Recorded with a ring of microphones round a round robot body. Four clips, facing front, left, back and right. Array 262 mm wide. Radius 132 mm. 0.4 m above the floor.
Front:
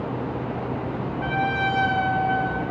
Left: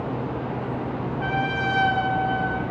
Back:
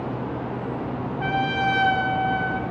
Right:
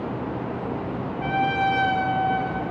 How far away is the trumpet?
About 0.6 m.